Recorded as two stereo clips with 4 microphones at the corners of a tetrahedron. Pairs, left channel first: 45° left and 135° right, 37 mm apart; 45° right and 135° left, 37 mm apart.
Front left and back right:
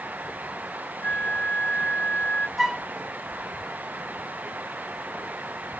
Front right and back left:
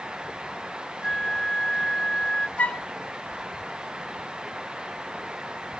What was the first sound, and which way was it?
A flute, 25° left.